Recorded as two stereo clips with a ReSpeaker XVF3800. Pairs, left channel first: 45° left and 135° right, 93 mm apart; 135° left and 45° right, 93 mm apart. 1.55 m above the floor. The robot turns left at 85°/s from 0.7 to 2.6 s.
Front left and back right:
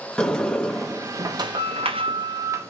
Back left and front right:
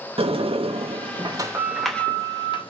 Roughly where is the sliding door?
Ahead right.